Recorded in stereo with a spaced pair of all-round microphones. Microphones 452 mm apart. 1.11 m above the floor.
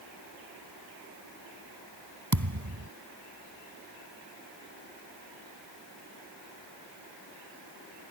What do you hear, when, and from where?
2.3 s a thud: 40° right (ahead or behind)